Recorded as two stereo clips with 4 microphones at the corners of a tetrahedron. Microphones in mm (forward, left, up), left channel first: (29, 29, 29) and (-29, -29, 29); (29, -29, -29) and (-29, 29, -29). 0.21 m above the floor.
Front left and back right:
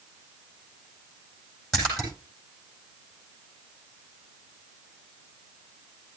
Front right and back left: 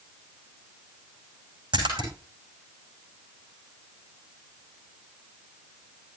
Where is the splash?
125° left, 9 m.